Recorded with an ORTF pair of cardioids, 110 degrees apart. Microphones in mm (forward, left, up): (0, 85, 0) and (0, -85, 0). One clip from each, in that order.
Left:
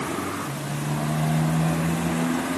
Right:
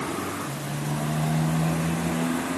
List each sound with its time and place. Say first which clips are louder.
0.0 s a motorcycle: left 1 dB; 10° left